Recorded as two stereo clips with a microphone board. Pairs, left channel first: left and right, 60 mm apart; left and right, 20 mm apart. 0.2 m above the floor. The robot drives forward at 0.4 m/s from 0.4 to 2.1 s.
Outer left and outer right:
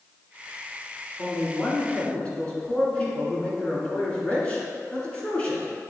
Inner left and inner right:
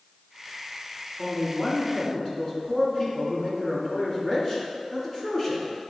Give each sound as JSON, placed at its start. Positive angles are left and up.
{"t": 1.2, "sound": "a man speaking", "side_deg": 25, "distance_m": 1.6}